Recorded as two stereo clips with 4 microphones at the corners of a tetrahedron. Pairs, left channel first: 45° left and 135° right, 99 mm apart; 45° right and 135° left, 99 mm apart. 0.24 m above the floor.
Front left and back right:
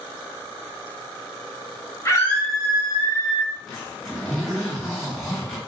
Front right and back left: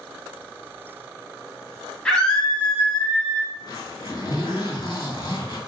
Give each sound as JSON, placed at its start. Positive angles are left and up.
{"t": 2.0, "sound": "a scream", "azimuth_deg": 30, "distance_m": 1.1}
{"t": 3.5, "sound": "a zipper", "azimuth_deg": -40, "distance_m": 2.0}